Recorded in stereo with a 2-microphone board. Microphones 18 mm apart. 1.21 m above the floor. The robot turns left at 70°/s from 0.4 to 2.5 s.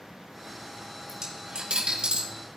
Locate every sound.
1.1 s a dropped coin: 20° right (ahead or behind), 8.5 m; by 2.2 s 75° right (ahead or behind), 8.5 m